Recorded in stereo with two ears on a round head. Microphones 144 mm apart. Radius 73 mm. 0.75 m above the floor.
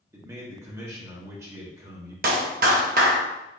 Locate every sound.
0.1 s a man speaking: 20° right (ahead or behind), 1.3 m
2.2 s a clap: 55° right (ahead or behind), 0.9 m